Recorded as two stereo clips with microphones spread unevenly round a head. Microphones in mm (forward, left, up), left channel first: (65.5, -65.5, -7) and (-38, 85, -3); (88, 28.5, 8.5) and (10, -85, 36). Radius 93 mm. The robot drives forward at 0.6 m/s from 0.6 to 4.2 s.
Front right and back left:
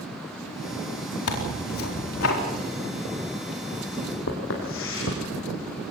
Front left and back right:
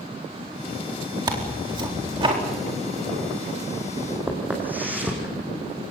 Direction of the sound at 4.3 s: 55° right.